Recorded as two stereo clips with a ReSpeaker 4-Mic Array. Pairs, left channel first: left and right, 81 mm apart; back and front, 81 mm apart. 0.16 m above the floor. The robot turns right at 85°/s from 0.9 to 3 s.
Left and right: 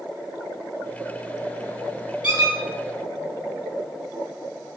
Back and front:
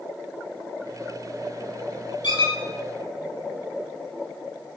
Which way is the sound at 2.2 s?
165° right.